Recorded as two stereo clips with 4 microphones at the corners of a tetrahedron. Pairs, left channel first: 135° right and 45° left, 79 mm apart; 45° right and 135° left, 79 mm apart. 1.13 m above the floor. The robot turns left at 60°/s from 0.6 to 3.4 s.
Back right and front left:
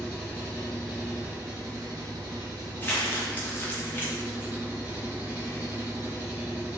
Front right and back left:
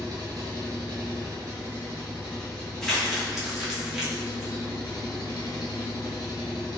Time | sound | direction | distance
0.0 | an engine running | 150° left | 1.0 m
2.8 | crumpling | 115° right | 0.6 m